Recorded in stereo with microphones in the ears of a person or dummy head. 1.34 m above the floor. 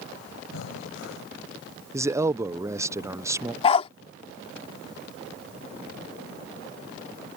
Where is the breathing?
80° left.